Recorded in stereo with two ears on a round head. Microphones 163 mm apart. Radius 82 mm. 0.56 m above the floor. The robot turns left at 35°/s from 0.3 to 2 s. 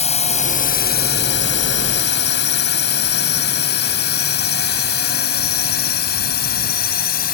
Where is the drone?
40° left (ahead or behind); by 7.3 s 55° left (ahead or behind).